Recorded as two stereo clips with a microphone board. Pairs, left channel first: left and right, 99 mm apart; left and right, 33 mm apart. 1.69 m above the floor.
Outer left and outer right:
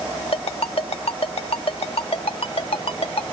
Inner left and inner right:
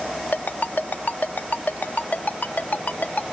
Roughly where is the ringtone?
Left.